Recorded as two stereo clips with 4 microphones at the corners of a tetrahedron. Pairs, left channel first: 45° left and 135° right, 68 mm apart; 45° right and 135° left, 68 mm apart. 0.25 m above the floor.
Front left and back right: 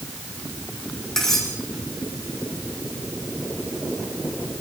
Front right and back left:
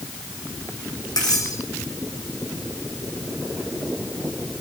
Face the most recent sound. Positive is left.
turn(degrees=-40)